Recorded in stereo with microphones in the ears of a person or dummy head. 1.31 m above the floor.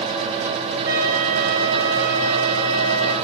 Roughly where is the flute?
Right.